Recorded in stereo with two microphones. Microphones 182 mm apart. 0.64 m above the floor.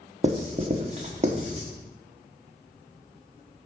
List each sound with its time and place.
0.2 s writing: 40° right (ahead or behind), 1.4 m